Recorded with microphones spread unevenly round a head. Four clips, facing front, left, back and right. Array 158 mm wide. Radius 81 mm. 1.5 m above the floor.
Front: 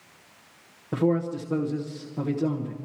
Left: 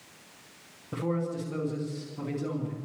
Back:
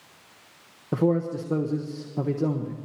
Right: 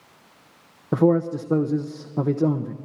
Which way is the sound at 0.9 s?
100° right.